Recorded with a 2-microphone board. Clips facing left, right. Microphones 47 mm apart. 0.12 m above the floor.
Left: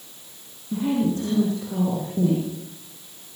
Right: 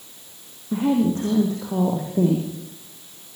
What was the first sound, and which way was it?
A woman speaking, 45° right (ahead or behind).